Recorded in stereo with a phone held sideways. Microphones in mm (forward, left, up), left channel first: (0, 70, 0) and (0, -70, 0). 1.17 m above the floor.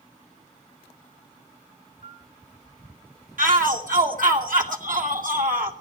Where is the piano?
40° right (ahead or behind), 6 m.